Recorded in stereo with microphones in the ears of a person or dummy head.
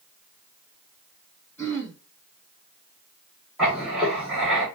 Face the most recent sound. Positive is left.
turn(degrees=-5)  # may be behind; listen again after turning